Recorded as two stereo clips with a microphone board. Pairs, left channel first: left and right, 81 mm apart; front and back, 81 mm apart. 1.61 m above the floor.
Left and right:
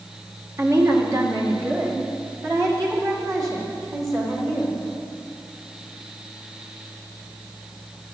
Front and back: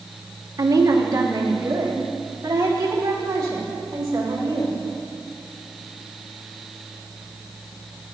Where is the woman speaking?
140° right, 1.1 m; by 4.8 s 135° right, 4 m.